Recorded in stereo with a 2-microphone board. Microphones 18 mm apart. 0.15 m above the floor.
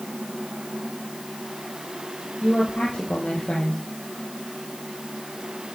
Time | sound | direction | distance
2.4 | a woman speaking | 70° left (ahead or behind) | 4.5 m